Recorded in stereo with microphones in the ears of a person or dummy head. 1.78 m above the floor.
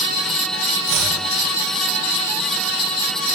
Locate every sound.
0.9 s chopping: 75° right (ahead or behind), 7.5 m